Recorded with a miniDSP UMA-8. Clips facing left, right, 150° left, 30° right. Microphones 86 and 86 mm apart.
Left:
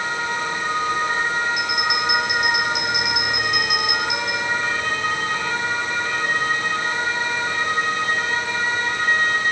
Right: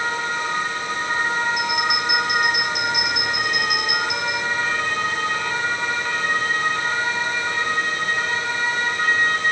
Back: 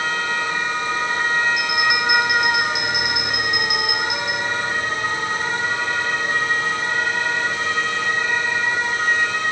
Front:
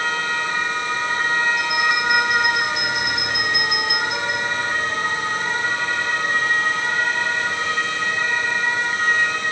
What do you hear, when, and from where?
1.6 s a bell: 135° right, 5 m